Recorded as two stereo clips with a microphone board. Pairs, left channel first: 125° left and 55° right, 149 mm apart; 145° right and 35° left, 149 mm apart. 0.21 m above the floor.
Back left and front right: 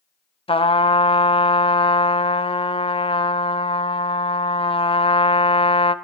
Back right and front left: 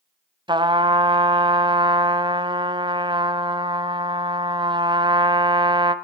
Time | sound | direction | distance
0.5 | a trumpet | 85° left | 0.8 m